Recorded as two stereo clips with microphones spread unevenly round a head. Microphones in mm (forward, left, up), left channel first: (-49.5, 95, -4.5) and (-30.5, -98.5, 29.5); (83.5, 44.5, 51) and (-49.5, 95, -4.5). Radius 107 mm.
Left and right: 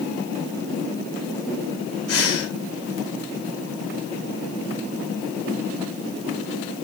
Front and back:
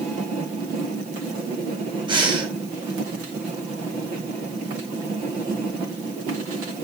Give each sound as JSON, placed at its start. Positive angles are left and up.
{"t": 2.1, "sound": "breathing", "azimuth_deg": 100, "distance_m": 7.0}